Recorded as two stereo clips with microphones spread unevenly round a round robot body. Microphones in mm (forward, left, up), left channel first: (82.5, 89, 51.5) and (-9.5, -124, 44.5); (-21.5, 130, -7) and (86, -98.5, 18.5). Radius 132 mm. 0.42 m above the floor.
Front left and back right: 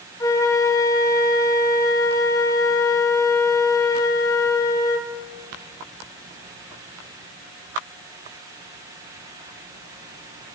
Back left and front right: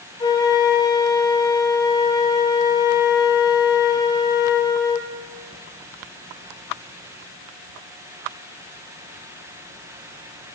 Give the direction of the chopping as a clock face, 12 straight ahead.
I don't hear chopping.